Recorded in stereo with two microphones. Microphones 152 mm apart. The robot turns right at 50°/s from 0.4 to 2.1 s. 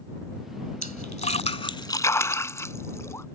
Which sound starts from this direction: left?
A splash, at 0.8 s.